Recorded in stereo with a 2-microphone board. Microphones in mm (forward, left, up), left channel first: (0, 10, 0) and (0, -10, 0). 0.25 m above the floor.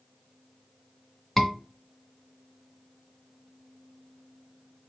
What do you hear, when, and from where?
1.4 s a scream: centre (ahead or behind), 1.8 m